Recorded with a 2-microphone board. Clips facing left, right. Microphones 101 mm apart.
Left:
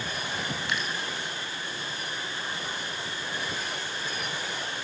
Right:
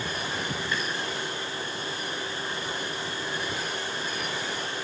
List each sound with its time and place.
0.7 s dripping: 75° left (ahead or behind), 4.5 m